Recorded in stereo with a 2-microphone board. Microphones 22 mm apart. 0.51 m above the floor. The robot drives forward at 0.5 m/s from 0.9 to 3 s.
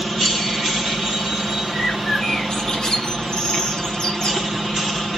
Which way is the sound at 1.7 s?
35° left (ahead or behind).